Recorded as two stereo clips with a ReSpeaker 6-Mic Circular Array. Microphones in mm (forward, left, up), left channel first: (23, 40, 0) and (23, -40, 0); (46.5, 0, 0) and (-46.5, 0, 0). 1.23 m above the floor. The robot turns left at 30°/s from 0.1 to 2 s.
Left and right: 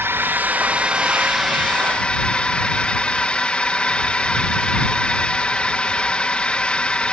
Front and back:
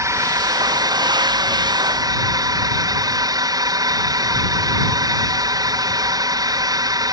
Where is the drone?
140° right; by 7.1 s 165° left.